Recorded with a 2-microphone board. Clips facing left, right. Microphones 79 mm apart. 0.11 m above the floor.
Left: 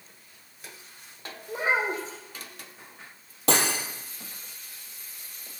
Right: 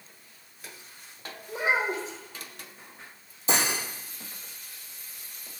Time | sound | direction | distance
1.5 | a child speaking | 40° left (ahead or behind) | 4 m
3.5 | cutlery clinking | 70° left (ahead or behind) | 2 m